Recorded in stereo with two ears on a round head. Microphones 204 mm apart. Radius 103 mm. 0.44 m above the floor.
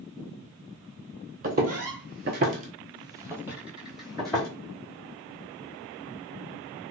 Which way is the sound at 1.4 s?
40° right (ahead or behind).